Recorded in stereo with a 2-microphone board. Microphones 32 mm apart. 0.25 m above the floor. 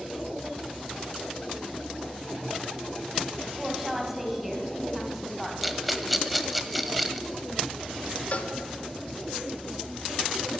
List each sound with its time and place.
3.6 s a woman speaking: 5° right (ahead or behind), 1.5 m
5.6 s a rattle: 5° right (ahead or behind), 0.8 m
8.3 s a cowbell: 45° left (ahead or behind), 0.7 m